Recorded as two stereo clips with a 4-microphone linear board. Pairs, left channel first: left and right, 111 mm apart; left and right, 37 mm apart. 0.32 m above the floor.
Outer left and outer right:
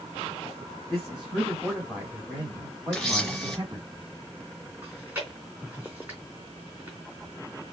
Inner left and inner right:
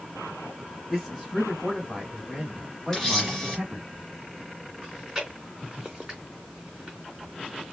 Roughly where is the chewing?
Centre.